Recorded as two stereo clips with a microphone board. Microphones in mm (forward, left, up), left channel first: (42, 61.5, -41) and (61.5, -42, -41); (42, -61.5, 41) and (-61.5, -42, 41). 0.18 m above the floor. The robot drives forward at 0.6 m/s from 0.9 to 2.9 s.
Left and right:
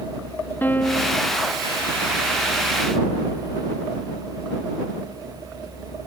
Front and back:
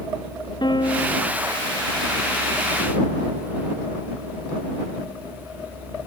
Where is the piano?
30° left.